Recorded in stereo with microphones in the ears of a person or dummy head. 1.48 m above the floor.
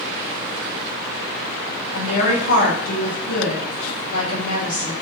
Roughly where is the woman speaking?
Left.